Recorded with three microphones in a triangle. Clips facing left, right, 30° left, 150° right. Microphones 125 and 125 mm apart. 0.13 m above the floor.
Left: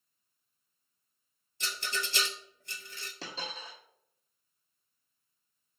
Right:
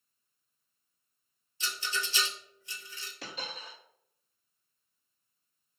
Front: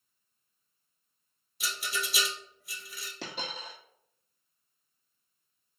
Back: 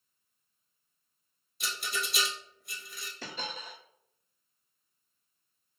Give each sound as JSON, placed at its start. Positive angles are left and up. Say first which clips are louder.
{"t": 1.6, "sound": "a rattle", "louder": "even, front 1 dB", "azimuth_deg": 120, "distance_m": 0.5}
{"t": 3.2, "sound": "a dropped coin", "louder": "left 1 dB, front 1 dB", "azimuth_deg": 30, "distance_m": 1.4}